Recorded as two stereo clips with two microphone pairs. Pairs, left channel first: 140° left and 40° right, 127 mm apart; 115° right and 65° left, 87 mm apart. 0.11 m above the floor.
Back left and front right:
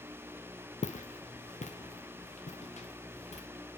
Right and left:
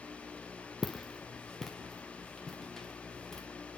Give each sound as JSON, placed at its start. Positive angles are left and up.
{"t": 0.8, "sound": "footsteps", "azimuth_deg": 160, "distance_m": 0.8}